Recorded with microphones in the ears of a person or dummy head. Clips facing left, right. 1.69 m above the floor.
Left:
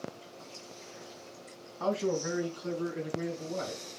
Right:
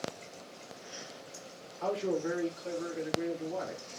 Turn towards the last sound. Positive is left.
turn(degrees=40)  # may be behind; listen again after turning